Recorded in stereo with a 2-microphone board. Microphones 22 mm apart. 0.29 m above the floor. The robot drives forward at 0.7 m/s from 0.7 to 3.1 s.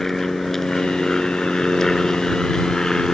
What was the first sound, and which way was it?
An aircraft, 20° left (ahead or behind).